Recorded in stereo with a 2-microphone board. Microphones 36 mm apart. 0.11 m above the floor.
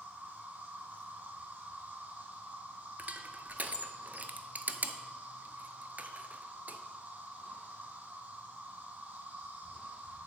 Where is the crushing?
55° right (ahead or behind), 0.6 m.